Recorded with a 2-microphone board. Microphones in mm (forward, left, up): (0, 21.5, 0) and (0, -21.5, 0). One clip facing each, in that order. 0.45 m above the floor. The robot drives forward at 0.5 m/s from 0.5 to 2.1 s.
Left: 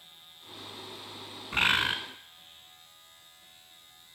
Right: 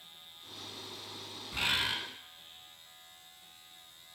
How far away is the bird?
About 0.7 m.